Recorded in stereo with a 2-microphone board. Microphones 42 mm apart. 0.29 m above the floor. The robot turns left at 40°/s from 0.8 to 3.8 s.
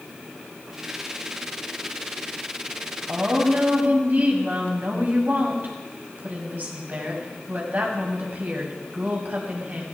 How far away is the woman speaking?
About 1.8 m.